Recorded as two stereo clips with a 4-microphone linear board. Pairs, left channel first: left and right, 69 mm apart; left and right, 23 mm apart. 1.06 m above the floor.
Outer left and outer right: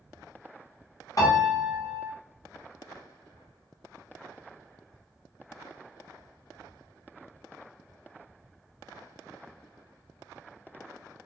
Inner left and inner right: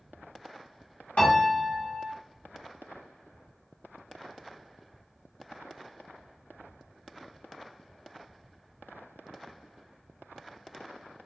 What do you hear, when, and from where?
1.2 s a piano: 50° left (ahead or behind), 0.9 m